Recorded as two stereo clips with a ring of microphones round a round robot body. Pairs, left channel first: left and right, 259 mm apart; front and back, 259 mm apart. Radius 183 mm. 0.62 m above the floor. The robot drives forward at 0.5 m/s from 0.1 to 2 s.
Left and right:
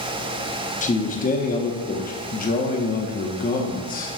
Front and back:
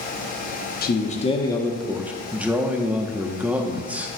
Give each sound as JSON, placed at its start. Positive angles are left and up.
{"t": 0.8, "sound": "a man speaking", "azimuth_deg": 40, "distance_m": 1.0}